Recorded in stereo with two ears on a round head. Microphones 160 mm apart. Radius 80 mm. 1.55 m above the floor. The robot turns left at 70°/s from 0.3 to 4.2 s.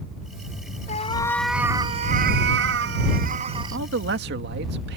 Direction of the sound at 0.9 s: 40° left.